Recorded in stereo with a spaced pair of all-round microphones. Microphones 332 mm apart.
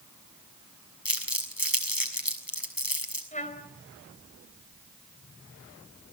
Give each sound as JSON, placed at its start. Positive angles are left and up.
{"t": 1.1, "sound": "crumpling", "side_deg": 80, "distance_m": 5.5}
{"t": 3.3, "sound": "a trumpet", "side_deg": 20, "distance_m": 4.0}